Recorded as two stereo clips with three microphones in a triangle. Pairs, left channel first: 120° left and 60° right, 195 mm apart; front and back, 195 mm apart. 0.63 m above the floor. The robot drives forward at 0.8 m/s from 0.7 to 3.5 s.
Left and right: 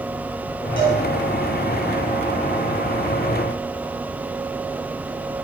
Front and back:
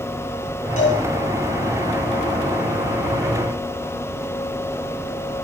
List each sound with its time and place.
0.8 s a cowbell: 50° right, 8.5 m